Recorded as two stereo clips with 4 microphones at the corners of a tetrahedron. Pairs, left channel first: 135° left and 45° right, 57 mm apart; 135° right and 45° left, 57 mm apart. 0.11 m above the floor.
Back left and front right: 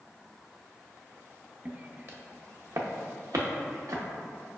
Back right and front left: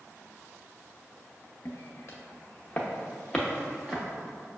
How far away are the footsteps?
About 1.0 m.